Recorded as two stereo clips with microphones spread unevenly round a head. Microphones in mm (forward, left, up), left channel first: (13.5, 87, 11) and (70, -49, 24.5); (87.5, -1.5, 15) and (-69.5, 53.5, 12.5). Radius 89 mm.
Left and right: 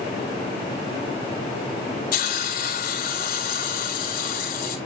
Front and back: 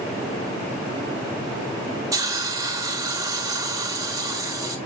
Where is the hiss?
90° left, 4.5 m.